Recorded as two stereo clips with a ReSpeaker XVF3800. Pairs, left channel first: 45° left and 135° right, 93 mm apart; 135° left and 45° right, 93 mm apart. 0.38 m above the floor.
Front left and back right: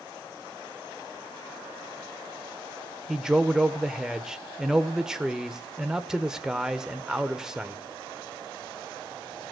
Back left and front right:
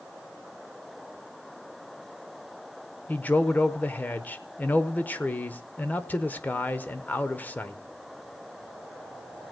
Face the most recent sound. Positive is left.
turn(degrees=155)